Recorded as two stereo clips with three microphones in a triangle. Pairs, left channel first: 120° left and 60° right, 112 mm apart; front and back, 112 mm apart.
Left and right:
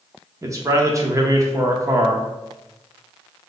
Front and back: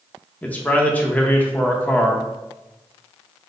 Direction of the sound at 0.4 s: 60° right.